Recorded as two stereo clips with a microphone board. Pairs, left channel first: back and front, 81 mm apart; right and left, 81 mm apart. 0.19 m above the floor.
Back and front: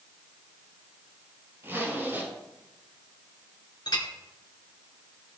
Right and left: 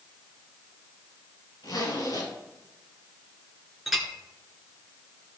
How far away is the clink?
About 1.9 m.